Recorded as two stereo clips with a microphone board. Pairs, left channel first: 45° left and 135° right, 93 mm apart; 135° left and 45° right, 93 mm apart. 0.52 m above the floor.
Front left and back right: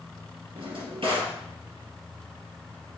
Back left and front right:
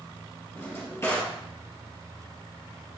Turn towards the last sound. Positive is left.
turn(degrees=-160)